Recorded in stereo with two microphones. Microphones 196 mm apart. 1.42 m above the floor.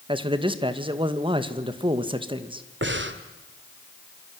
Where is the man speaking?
25° right (ahead or behind), 2 m.